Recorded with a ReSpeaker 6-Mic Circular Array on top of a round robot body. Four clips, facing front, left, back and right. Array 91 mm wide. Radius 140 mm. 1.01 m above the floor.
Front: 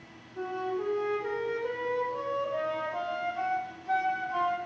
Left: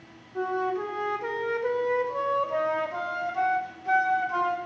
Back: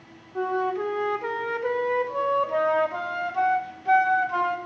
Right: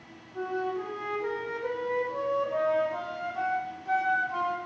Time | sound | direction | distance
0.3 | a flute | 160° left | 0.8 m